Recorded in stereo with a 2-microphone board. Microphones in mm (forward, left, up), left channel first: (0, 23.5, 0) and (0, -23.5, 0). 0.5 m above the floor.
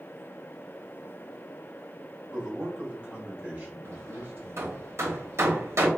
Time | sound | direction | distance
2.3 | a man speaking | 20° right (ahead or behind) | 1.6 m
3.9 | hammering | 65° right (ahead or behind) | 1.0 m